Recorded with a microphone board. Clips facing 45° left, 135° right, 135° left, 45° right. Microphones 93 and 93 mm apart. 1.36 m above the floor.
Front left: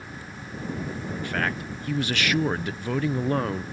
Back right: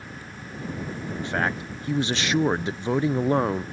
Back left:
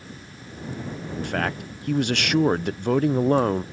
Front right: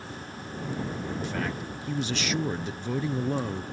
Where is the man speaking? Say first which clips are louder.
Back right 2 dB, back left 8 dB; 160° left.